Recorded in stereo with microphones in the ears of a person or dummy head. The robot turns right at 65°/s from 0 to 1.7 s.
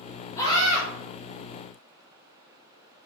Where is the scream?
20° left, 5 m; by 0.8 s 50° left, 5 m.